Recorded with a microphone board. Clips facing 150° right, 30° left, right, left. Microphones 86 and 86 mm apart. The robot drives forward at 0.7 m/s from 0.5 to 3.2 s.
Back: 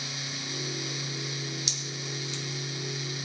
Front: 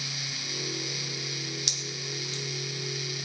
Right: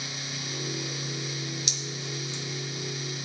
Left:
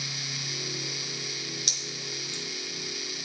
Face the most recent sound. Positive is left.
turn(degrees=115)